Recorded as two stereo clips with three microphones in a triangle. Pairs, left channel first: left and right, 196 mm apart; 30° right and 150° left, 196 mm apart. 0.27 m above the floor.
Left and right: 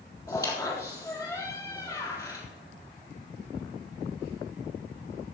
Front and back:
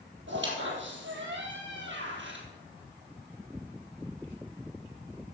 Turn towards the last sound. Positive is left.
turn(degrees=160)